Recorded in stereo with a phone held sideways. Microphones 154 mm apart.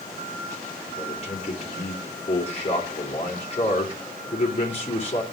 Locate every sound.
1.0 s a man speaking: 40° left (ahead or behind), 3 m